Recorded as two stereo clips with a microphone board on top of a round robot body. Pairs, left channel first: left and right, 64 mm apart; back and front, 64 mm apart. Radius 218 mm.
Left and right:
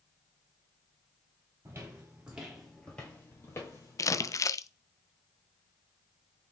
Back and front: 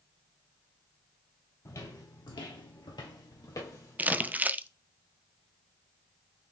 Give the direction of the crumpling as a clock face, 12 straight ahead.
10 o'clock.